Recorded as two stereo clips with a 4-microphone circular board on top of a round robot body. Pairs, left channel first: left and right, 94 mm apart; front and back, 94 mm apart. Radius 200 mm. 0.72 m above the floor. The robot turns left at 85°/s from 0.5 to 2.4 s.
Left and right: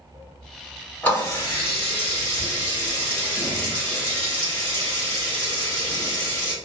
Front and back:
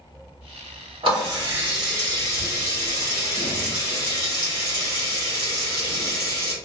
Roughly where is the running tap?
Behind.